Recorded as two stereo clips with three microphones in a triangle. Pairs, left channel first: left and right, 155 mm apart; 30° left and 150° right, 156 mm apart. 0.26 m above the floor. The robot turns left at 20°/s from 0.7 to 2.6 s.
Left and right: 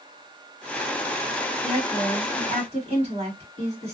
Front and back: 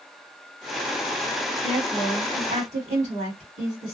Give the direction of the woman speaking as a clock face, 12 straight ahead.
4 o'clock.